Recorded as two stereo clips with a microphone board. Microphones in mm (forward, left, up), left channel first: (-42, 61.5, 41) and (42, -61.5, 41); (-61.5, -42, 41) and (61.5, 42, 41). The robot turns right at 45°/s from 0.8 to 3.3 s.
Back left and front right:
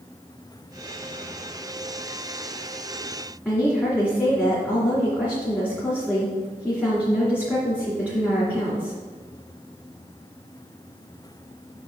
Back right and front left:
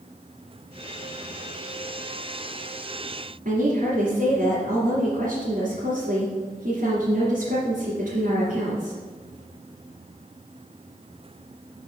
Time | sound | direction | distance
3.5 | a woman speaking | 45° left | 2 m